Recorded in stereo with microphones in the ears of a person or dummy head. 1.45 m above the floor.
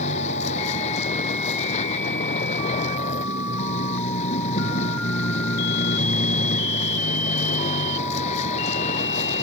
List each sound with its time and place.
0.0 s a vehicle: 40° left (ahead or behind)